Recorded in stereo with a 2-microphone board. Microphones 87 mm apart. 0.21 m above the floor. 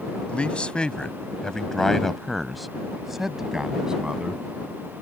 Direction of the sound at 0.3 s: 15° left (ahead or behind).